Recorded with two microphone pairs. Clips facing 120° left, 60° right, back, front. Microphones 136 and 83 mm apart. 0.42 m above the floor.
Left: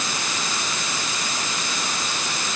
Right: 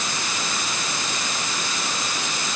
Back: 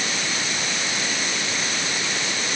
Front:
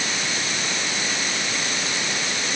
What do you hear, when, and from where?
Only background noise.